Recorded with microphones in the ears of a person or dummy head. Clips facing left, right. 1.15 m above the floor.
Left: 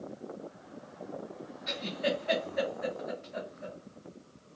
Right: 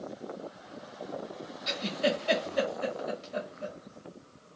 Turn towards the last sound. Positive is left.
turn(degrees=-50)  # may be behind; listen again after turning